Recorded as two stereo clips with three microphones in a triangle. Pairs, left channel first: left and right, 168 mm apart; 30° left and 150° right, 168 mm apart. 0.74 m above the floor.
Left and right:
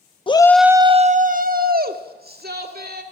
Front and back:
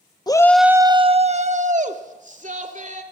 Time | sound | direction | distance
0.3 | a shout | 70° left | 0.6 m